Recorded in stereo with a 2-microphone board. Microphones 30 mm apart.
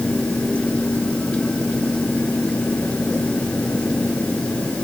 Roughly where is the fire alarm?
No fire alarm in this recording.